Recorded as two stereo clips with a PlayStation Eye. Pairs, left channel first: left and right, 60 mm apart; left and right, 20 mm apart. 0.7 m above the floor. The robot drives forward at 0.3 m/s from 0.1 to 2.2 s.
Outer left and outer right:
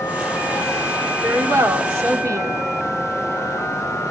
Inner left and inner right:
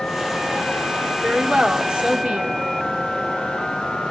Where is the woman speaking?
65° right (ahead or behind), 1.5 m; by 2.5 s 60° right (ahead or behind), 1.6 m.